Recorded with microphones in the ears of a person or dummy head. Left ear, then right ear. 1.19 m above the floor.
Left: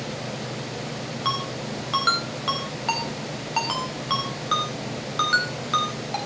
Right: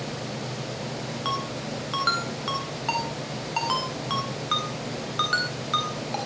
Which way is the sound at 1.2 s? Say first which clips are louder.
Left 3 dB; 5° left (ahead or behind).